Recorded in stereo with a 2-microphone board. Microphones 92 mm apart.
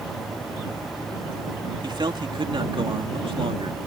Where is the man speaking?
55° right (ahead or behind); by 3.8 s 80° right.